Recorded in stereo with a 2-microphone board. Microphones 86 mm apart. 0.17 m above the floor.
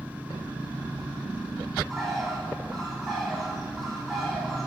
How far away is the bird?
About 1.6 m.